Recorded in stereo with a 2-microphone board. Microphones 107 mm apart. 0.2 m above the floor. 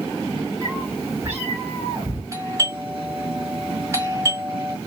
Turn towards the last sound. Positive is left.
turn(degrees=-25)  # may be behind; listen again after turning